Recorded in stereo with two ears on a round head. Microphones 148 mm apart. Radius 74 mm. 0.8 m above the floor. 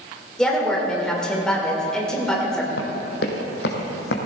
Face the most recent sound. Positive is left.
turn(degrees=70)  # may be behind; listen again after turning